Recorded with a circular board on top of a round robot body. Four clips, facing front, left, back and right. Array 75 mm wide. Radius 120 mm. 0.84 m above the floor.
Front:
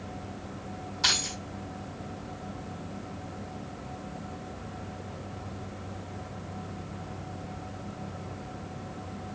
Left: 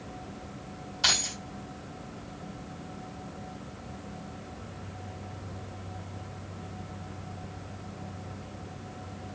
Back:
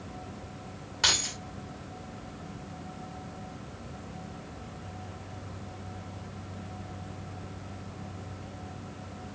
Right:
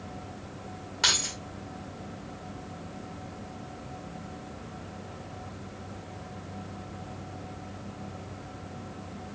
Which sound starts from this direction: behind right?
Keys jangling, at 1.0 s.